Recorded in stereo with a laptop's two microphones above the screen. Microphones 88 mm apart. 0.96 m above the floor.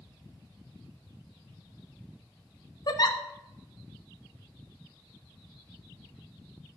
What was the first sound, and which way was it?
A giggle, 50° left (ahead or behind).